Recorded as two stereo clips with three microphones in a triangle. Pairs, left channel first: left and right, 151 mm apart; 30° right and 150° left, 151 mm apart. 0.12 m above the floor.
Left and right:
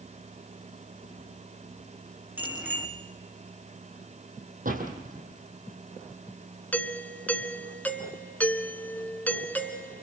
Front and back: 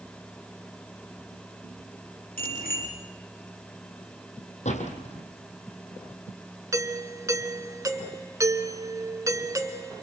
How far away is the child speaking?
No child speaking in this recording.